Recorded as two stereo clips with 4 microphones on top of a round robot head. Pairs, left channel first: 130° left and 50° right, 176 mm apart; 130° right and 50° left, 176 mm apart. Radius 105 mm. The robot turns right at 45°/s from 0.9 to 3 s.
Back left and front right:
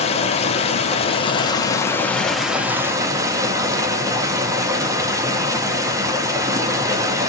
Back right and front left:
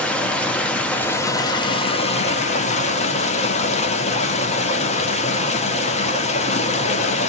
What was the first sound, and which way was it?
Running water, 150° left.